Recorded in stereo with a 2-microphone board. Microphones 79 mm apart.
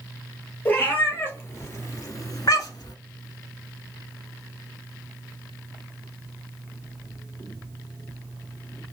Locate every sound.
0.7 s a cat meowing: 25° left (ahead or behind), 1.6 m; by 3.0 s 65° left (ahead or behind), 0.7 m